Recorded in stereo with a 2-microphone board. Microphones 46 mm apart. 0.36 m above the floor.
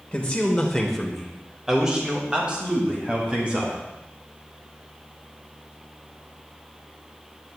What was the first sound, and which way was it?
A man speaking, 25° left (ahead or behind).